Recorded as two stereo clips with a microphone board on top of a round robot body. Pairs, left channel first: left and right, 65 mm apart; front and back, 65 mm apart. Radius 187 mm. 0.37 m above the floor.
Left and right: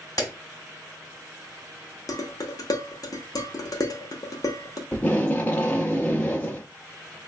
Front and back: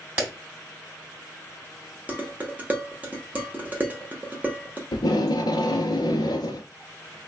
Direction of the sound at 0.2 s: 115° left.